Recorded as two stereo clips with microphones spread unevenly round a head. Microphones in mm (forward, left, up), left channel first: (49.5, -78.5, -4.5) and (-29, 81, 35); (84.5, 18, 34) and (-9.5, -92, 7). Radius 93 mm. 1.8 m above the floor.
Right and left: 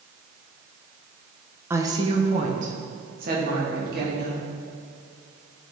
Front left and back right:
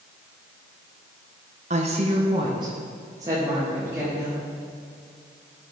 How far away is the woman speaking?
About 0.9 m.